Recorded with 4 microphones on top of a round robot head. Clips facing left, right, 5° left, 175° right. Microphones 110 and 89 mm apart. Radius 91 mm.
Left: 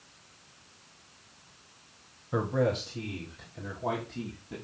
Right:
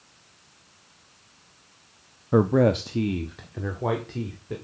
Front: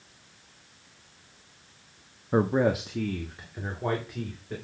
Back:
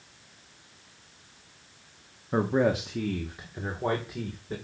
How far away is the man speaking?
About 0.7 m.